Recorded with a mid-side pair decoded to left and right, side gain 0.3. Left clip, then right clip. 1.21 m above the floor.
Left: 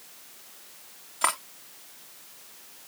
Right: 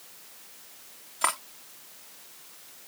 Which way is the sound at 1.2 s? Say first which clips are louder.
Left 1 dB; 10° left.